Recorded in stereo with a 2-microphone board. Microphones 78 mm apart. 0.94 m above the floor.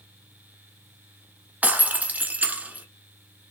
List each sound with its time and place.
1.6 s breaking glass: 20° right (ahead or behind), 0.9 m